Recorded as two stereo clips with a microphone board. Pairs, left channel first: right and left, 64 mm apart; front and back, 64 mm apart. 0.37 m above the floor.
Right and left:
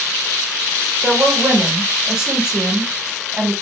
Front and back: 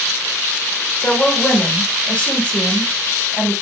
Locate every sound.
1.0 s a woman speaking: 25° left, 0.9 m